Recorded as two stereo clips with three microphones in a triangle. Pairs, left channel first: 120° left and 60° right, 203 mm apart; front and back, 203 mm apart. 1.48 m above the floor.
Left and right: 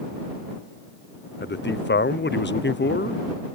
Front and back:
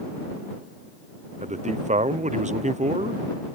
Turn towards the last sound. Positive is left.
turn(degrees=135)